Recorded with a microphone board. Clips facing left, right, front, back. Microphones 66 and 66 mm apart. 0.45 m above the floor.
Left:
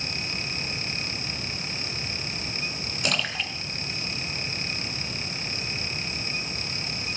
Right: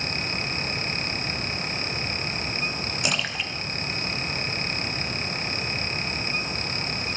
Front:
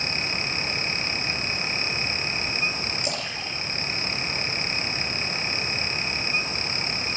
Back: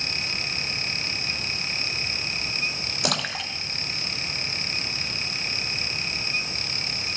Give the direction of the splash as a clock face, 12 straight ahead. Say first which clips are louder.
Left 1 dB, back 3 dB; 6 o'clock.